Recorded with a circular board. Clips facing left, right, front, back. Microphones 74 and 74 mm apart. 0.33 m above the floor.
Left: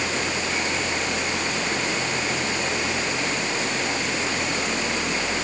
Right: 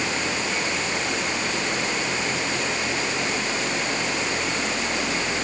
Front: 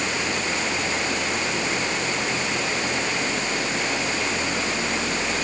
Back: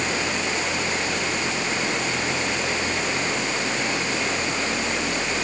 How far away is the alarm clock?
No alarm clock in this recording.